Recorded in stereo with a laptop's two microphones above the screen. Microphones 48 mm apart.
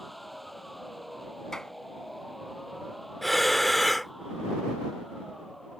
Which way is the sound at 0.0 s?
Centre (ahead or behind).